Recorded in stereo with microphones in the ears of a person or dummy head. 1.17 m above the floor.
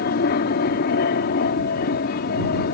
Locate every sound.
0.0 s an aircraft: 55° left (ahead or behind)